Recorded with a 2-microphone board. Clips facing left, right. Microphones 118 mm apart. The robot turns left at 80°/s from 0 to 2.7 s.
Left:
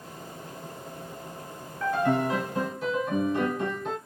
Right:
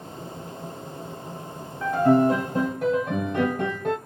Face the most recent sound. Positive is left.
turn(degrees=-85)